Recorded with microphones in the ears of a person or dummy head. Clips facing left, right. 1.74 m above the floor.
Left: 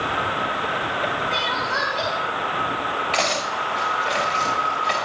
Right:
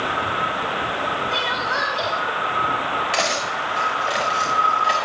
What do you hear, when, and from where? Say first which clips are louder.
1.3 s crying: right 1 dB; 10° right (ahead or behind), 2.5 m
3.1 s cutlery clinking: even; 10° right (ahead or behind), 2.5 m